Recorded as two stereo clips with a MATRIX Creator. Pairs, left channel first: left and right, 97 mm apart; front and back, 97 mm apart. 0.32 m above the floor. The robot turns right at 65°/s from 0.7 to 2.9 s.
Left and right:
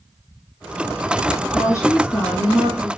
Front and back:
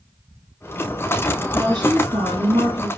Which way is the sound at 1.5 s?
130° left.